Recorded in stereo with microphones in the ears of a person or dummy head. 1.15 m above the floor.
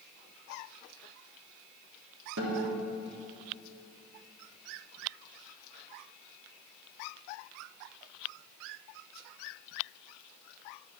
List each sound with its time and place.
2.4 s a guitar: 70° right (ahead or behind), 3 m